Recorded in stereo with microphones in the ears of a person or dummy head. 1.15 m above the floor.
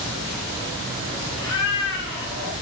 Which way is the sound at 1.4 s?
70° left (ahead or behind).